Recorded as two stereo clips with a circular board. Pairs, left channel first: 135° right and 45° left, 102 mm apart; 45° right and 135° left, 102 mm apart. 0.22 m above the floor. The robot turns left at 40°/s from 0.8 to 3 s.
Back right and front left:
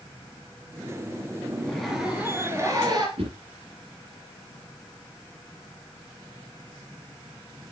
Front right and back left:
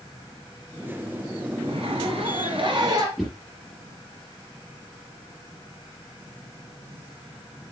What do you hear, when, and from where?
1.6 s a zipper: 145° left, 3 m; by 3.1 s 90° left, 3 m
3.2 s a whoosh: 45° left, 4 m